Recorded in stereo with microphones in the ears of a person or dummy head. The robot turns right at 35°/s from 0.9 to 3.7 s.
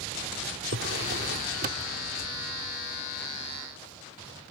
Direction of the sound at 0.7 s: 85° right.